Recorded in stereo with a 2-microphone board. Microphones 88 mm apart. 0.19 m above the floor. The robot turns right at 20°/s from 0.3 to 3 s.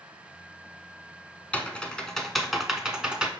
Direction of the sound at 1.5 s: 15° left (ahead or behind).